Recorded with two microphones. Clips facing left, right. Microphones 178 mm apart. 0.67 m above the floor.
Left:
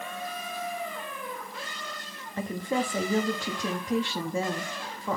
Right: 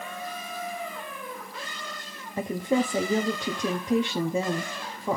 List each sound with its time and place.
2.4 s a woman speaking: 20° right (ahead or behind), 0.9 m